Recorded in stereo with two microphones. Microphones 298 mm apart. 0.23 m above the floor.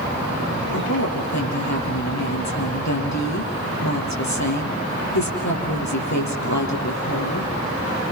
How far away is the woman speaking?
About 8 m.